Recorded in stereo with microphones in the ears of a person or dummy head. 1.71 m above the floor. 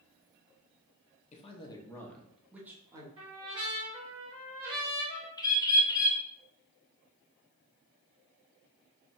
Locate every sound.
1.3 s a man speaking: 40° left (ahead or behind), 0.9 m; by 3.1 s 20° right (ahead or behind), 1.2 m
3.2 s a trumpet: 35° right (ahead or behind), 2 m
5.4 s a bird: 15° left (ahead or behind), 1.2 m